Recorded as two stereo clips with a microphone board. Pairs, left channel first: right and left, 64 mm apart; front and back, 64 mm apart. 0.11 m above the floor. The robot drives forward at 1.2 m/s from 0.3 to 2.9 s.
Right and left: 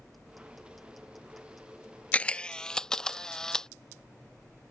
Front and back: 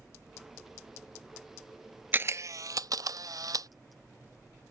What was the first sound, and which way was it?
A camera shutter, 145° right.